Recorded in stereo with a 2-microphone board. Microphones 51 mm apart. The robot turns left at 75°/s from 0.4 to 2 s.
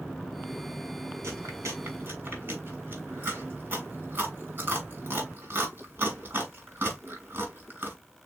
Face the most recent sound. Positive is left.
turn(degrees=-55)  # may be behind; listen again after turning